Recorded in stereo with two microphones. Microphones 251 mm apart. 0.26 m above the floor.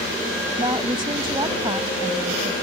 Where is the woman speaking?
20° right (ahead or behind).